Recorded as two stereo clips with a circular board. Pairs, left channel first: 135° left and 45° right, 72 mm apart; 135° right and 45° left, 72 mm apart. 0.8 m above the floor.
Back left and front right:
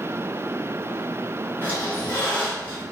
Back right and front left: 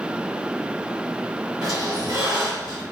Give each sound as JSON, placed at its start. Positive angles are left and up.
{"t": 1.6, "sound": "a squeak", "azimuth_deg": 75, "distance_m": 1.3}